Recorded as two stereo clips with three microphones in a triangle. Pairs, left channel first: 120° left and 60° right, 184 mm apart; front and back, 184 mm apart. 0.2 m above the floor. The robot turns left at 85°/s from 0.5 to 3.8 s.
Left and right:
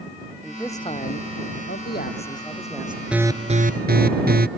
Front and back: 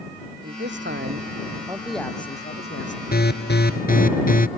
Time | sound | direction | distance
0.4 | a man speaking | 150° right | ?
3.1 | an alarm | 25° left | ?